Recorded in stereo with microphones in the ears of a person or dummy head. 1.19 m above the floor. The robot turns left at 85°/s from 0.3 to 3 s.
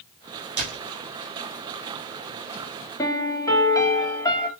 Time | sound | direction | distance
0.6 | a door slam | 50° right (ahead or behind) | 4 m
3.0 | a piano | 20° left (ahead or behind) | 2 m